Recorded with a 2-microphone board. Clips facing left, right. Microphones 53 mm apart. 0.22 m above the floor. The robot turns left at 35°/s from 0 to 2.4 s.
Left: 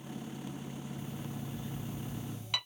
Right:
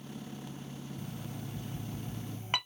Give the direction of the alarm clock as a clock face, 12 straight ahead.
3 o'clock.